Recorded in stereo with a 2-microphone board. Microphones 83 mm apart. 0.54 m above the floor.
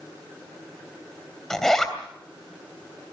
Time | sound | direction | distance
1.5 | a zipper | 5° left (ahead or behind) | 3 m